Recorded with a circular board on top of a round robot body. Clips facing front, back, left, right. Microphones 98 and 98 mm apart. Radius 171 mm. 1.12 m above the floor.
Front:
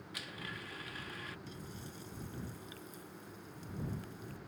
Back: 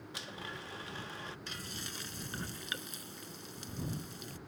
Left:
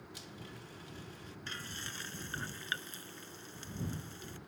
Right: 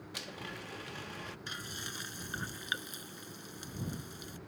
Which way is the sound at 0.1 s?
120° right.